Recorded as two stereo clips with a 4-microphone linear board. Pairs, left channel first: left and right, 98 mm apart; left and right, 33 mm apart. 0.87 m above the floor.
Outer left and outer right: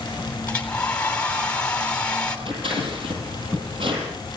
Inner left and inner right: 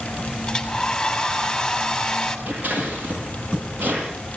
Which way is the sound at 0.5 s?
10° left (ahead or behind).